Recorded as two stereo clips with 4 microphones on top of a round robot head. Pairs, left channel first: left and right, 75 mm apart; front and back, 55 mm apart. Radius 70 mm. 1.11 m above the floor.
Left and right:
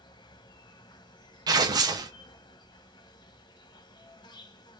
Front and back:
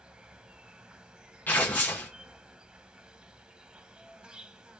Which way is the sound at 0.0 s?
110° left.